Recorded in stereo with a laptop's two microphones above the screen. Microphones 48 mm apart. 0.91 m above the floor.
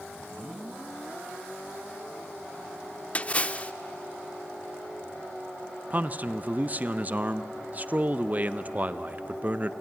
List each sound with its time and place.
3.1 s a splash: 30° left (ahead or behind), 0.5 m
5.9 s a man speaking: 35° right (ahead or behind), 0.6 m